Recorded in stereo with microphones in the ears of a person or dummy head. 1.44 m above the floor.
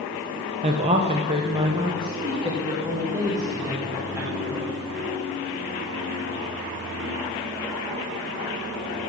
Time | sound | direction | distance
0.6 | a woman speaking | 35° right (ahead or behind) | 0.8 m